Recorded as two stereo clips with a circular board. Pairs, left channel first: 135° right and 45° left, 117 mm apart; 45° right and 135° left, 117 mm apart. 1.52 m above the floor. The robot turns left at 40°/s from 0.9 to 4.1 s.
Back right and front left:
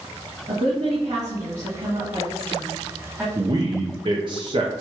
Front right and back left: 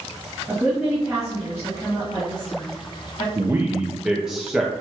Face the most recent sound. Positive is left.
turn(degrees=55)